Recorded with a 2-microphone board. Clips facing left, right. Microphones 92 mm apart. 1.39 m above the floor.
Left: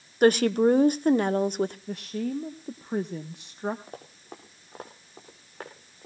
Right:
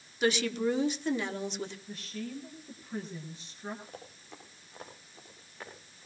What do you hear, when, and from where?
0.2 s a woman speaking: 50° left (ahead or behind), 0.9 m
1.9 s a woman speaking: 60° left (ahead or behind), 1.1 m
3.9 s running footsteps: 45° left (ahead or behind), 4.5 m; by 6.1 s 50° left (ahead or behind), 5.5 m